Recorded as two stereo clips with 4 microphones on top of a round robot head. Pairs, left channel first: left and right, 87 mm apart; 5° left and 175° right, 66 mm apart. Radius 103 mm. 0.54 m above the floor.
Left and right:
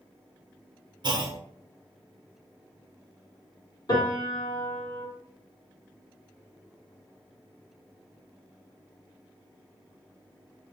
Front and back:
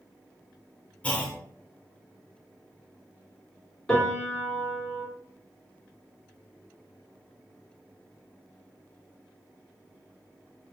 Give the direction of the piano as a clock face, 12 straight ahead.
9 o'clock.